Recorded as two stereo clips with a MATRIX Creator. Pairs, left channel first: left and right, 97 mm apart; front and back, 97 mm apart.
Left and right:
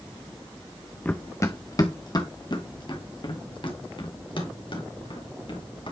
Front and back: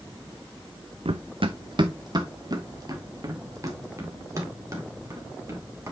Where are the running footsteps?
165° left, 0.6 m; by 5.9 s 120° left, 3.5 m.